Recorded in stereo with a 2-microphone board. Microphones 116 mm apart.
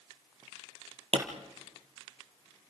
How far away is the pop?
About 3 m.